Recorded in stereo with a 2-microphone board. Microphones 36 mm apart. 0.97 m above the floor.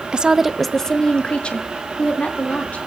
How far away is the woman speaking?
About 0.8 m.